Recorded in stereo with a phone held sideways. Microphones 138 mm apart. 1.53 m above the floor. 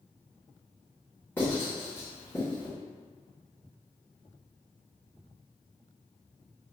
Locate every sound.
1.4 s writing: 15° left (ahead or behind), 1.8 m